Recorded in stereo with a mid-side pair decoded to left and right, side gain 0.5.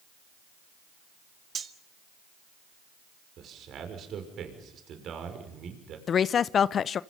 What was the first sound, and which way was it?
Cutlery clinking, 40° right.